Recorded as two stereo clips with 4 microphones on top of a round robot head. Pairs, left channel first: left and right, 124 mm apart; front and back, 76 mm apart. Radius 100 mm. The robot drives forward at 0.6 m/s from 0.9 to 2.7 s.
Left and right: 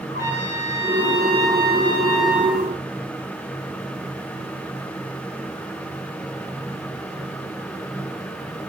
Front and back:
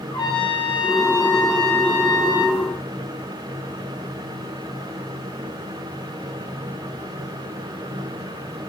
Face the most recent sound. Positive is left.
turn(degrees=30)